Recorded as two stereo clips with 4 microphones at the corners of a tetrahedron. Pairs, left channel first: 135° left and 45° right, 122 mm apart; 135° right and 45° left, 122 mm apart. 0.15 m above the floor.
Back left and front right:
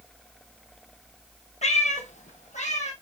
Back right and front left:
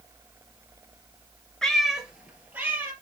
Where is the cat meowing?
140° left, 1.2 m; by 2.9 s 120° left, 2.5 m.